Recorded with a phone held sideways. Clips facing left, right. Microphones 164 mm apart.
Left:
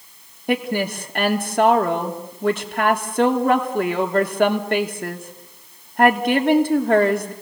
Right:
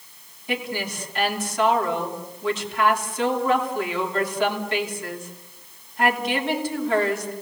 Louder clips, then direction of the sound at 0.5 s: Left 7 dB; 60° left (ahead or behind).